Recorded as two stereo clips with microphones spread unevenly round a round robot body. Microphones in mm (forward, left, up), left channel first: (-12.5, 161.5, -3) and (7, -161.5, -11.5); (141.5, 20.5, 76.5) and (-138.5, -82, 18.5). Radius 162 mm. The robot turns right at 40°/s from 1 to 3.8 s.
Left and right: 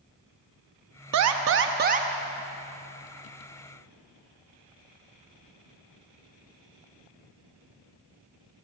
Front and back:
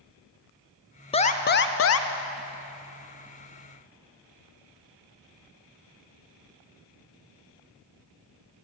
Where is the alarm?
55° right, 0.6 m; by 2.1 s 20° right, 0.6 m.